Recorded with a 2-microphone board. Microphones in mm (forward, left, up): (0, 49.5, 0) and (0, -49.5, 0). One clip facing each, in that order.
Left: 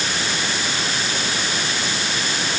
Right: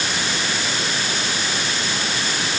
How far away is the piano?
I don't hear a piano.